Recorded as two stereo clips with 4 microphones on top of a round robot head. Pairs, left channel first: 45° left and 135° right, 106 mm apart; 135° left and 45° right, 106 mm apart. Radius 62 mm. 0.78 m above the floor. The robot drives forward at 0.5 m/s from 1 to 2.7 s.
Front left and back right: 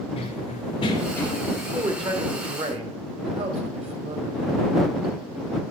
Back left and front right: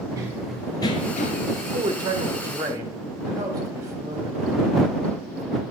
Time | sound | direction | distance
0.2 | running footsteps | 15° left | 1.2 m
1.6 | a man speaking | 90° right | 1.8 m